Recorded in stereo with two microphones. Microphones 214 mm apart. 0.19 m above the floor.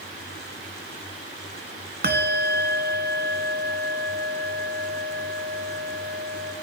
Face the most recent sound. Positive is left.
turn(degrees=-45)  # may be behind; listen again after turning